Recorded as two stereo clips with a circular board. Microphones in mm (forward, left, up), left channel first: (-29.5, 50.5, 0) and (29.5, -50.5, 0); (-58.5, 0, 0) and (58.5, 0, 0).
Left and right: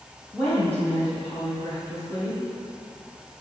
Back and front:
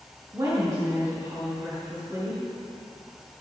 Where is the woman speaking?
50° left, 2.5 m.